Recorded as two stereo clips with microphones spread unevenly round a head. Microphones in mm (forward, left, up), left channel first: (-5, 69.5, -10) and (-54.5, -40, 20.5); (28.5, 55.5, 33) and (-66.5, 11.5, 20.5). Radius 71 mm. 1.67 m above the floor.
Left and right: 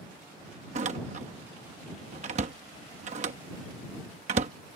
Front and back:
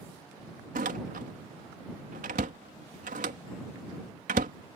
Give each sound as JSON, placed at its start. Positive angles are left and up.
{"t": 0.8, "sound": "a door slam", "azimuth_deg": -125}